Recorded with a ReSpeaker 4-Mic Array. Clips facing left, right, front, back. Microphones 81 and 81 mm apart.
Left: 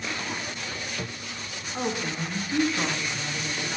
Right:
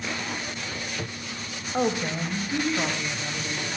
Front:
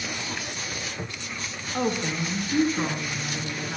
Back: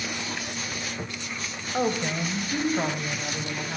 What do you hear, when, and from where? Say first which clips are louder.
1.7 s a woman speaking: right 4 dB, back 1 dB; 120° right, 1.7 m; by 3.8 s 165° right, 2.5 m